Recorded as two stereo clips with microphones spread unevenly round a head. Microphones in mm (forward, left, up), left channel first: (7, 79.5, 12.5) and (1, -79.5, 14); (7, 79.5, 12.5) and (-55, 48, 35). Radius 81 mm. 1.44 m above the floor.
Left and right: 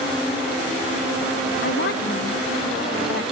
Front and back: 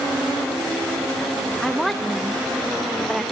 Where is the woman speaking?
120° left.